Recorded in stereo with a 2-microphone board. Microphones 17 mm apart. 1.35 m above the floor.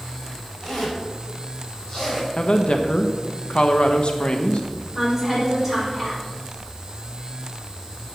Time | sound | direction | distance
0.6 | a zipper | 40° left (ahead or behind) | 5.5 m
2.4 | a woman speaking | 65° left (ahead or behind) | 1.1 m
5.0 | a woman speaking | 5° left (ahead or behind) | 6 m